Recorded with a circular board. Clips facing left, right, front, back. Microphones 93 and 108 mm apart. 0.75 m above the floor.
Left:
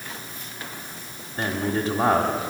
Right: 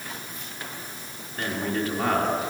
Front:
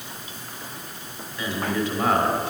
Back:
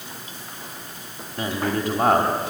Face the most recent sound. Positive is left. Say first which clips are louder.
# left 2 dB, back 1 dB
turn(degrees=150)